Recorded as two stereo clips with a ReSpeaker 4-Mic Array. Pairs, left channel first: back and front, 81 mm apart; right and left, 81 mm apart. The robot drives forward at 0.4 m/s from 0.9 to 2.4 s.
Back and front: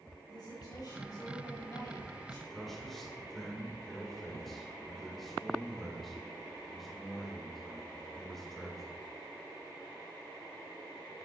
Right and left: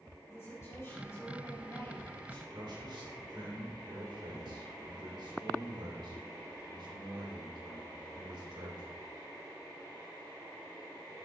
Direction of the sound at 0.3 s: 145° right.